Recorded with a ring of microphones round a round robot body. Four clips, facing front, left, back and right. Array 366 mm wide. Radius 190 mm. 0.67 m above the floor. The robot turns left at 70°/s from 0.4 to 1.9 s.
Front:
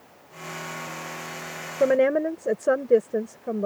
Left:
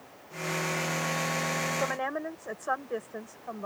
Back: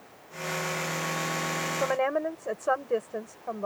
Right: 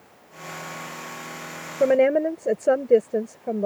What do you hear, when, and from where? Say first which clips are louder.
1.8 s a woman speaking: right 14 dB, front 8 dB; 45° right; by 3.7 s 55° right